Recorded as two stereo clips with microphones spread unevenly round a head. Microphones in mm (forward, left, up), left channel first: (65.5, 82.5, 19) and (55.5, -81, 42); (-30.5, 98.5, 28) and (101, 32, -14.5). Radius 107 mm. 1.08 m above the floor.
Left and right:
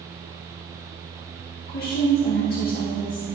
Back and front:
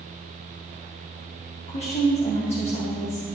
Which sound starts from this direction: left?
A woman speaking, at 1.7 s.